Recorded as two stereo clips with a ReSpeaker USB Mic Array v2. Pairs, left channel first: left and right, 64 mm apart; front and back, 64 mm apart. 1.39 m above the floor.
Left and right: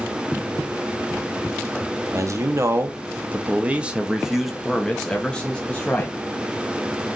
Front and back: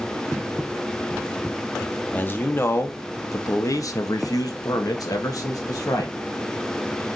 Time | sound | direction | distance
2.1 | a man speaking | 60° right | 1.4 m